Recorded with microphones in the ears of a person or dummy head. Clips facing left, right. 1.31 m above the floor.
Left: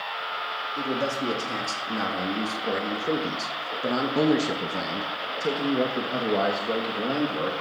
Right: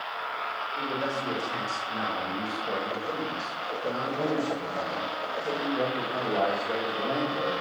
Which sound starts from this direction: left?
A man speaking, at 0.8 s.